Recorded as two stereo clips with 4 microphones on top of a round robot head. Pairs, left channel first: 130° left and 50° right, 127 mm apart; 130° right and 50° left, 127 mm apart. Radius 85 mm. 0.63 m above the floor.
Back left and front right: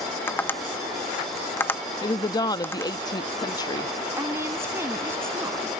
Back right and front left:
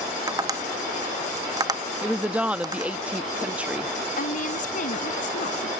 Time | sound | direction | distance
0.3 | tapping | 75° left | ?
2.0 | a woman speaking | 120° left | ?
4.2 | a woman speaking | 120° right | ?